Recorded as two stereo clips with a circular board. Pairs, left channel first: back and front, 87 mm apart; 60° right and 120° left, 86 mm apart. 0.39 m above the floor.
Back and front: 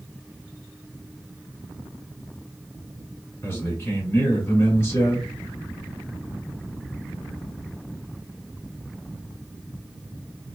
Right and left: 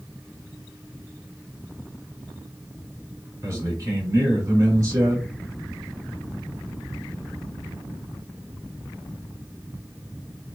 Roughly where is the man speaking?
Behind left.